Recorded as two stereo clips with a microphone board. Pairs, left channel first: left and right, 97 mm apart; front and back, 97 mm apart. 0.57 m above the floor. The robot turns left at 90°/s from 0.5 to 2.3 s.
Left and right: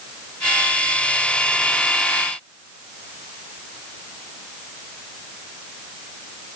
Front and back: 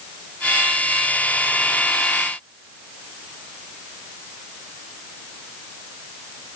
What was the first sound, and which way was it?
Only background noise.